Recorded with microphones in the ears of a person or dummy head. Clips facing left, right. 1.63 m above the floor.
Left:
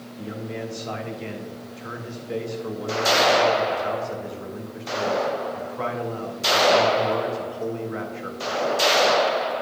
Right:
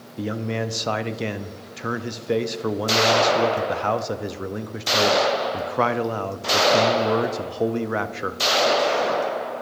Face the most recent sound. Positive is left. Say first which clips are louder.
# right 6 dB
turn(degrees=-75)  # may be behind; listen again after turning